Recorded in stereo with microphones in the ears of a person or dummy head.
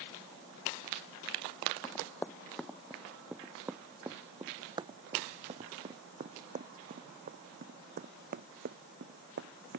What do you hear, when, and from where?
1.8 s running footsteps: 10° left (ahead or behind); by 9.8 s 55° right (ahead or behind)